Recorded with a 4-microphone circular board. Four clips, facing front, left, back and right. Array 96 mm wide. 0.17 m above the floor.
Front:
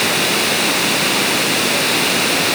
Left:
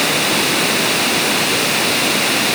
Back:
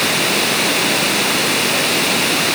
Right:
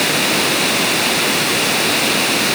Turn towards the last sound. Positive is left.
No sound to turn to.